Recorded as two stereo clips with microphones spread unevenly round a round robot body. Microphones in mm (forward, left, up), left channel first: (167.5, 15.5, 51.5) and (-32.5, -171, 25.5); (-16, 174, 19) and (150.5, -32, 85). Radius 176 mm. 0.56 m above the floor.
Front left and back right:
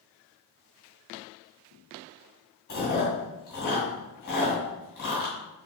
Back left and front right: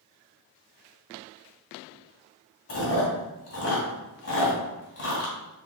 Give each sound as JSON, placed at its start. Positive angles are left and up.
{"t": 2.7, "sound": "chewing", "azimuth_deg": 100, "distance_m": 2.5}